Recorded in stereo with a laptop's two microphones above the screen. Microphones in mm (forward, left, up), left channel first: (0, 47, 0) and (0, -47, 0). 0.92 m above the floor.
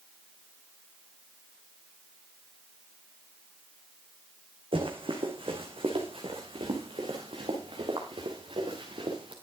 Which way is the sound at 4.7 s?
70° right (ahead or behind).